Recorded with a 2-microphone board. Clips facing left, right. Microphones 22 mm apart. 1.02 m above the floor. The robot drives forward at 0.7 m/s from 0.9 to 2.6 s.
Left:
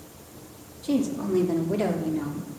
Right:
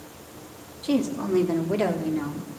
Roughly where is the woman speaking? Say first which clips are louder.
Right 1 dB; right.